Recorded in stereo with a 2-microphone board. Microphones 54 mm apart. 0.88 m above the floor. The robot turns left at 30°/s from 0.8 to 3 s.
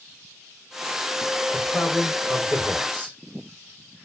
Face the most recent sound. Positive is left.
turn(degrees=-35)